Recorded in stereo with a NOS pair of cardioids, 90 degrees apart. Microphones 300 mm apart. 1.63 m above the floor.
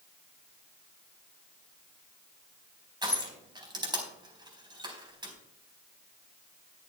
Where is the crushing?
15° right, 4.5 m.